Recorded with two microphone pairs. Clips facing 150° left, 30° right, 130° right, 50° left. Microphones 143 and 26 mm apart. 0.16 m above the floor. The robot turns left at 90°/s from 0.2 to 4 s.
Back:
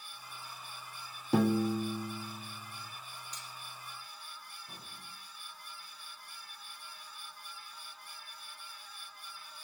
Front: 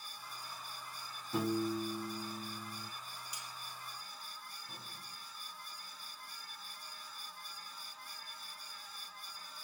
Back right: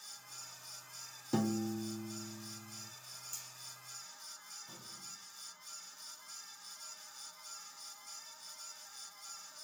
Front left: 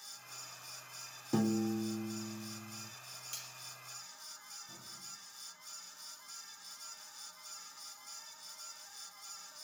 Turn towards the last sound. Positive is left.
turn(degrees=-140)